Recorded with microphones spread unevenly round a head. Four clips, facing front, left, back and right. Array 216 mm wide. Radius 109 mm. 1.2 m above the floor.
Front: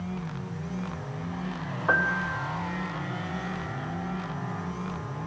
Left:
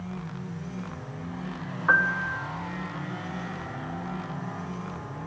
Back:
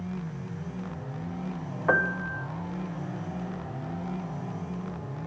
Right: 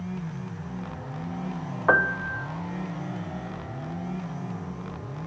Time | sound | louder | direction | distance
1.9 | a piano | right 1 dB, even | 110° right | 0.5 m